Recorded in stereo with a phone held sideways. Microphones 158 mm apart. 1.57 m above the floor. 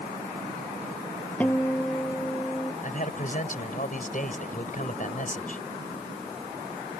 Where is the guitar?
10° left (ahead or behind).